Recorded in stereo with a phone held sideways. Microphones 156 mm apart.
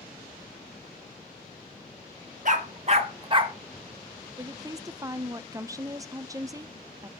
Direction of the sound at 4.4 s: 20° right (ahead or behind).